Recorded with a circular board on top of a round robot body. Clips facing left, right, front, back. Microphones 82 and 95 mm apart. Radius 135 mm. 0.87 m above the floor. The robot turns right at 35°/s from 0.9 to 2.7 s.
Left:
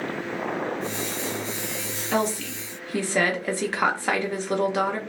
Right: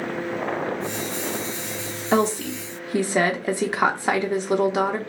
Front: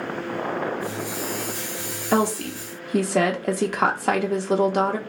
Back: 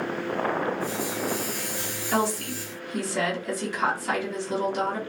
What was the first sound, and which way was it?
A woman speaking, 40° right.